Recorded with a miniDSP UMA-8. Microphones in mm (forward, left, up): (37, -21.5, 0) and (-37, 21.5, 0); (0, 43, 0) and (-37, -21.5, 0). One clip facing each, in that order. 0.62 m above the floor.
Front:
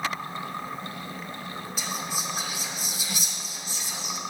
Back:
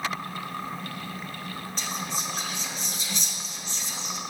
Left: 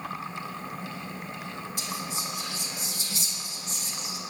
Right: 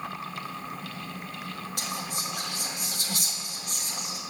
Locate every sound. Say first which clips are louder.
1.8 s whispering: even, even; 110° right, 2 m